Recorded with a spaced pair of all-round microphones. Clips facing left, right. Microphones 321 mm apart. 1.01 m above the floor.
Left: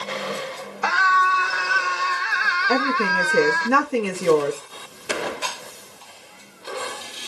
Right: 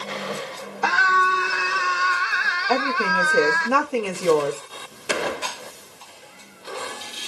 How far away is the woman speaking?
About 1.3 m.